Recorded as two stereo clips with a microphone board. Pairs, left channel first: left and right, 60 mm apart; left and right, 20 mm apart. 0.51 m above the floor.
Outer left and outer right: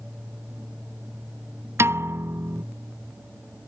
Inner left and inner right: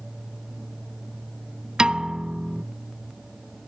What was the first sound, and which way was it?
A piano, 50° right (ahead or behind).